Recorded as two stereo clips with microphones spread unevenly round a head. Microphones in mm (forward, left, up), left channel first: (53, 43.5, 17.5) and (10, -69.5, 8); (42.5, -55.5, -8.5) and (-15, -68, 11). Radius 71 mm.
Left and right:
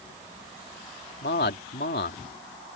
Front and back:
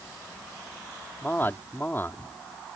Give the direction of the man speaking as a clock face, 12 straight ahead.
9 o'clock.